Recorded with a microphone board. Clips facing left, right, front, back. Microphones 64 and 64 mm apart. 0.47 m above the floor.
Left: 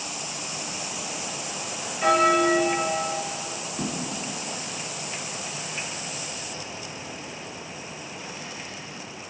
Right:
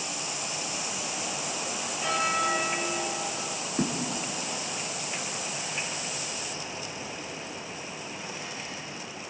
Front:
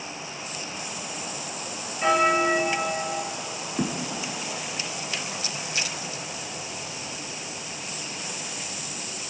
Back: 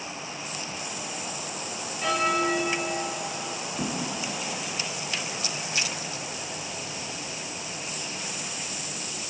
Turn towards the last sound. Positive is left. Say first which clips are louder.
# right 3 dB, front 4 dB
turn(degrees=-40)